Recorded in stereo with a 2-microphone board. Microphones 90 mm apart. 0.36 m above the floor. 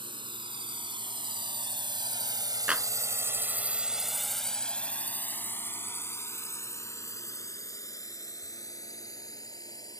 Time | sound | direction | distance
0.0 | a drone | 65° right (ahead or behind) | ?
2.7 | a clap | 15° right (ahead or behind) | ?